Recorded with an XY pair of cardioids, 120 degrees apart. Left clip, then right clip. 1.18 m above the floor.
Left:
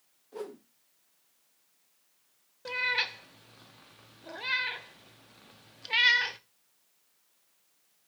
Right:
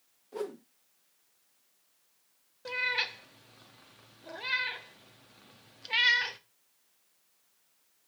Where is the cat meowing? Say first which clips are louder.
Left 1 dB; 10° left, 1.1 m.